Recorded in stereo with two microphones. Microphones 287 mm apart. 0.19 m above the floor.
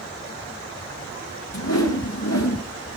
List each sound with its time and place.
1.5 s a whoosh: 65° left (ahead or behind), 1.8 m